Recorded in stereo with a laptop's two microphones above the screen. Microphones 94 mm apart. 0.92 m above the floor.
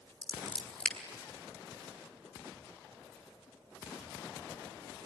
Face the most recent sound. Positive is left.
turn(degrees=10)  # may be behind; listen again after turning